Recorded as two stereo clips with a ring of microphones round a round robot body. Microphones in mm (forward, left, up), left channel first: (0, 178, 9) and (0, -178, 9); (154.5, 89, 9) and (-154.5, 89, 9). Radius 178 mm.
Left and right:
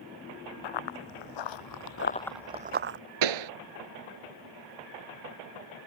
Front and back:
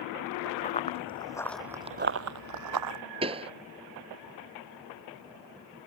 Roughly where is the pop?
Right.